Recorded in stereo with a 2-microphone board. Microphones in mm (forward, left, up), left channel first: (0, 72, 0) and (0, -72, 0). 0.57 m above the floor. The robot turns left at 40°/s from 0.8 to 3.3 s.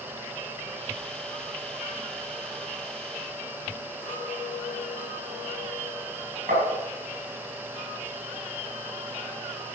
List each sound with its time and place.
4.0 s a clink: 30° left (ahead or behind), 2.5 m
6.5 s tapping: 75° right (ahead or behind), 5 m